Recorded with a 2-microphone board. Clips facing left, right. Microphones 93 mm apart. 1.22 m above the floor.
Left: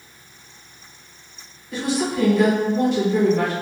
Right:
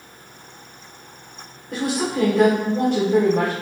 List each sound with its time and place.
1.7 s a woman speaking: 55° right (ahead or behind), 1.0 m